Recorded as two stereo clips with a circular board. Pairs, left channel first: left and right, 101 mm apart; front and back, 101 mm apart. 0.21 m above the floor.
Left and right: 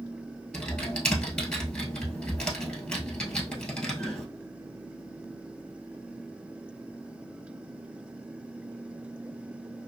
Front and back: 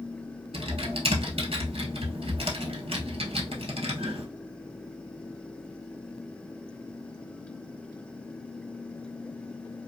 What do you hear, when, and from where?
0.5 s typing on a keyboard: 170° left, 1.1 m